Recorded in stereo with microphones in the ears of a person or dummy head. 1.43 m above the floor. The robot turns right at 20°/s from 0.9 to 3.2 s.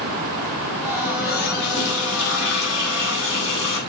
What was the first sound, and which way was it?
A running tap, 45° left.